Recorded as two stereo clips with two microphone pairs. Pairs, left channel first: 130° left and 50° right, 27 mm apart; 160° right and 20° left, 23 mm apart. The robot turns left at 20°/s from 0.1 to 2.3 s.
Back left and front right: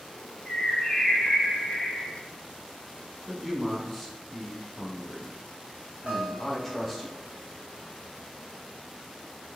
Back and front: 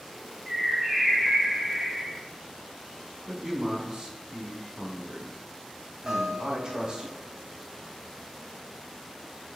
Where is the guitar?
20° right, 1.2 m.